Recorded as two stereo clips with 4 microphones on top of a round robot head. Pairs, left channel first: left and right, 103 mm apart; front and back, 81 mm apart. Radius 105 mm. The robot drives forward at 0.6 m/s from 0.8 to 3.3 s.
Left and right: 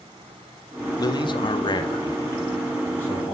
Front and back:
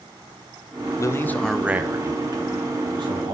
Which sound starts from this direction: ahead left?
A man speaking, at 1.0 s.